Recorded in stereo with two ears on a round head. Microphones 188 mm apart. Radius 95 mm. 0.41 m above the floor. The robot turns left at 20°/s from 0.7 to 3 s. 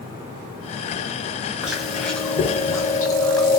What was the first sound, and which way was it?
Chewing, 5° right (ahead or behind).